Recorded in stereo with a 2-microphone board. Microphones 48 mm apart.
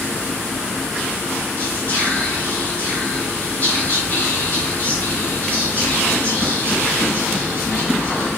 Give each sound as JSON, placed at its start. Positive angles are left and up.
{"t": 1.6, "sound": "whispering", "side_deg": 35, "distance_m": 1.3}